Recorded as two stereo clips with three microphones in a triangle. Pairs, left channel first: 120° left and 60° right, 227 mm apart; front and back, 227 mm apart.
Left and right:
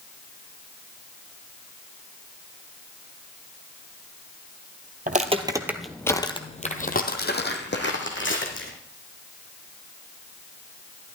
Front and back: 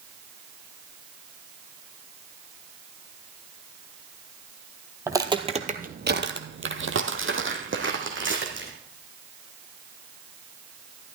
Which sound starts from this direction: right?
Footsteps, at 5.1 s.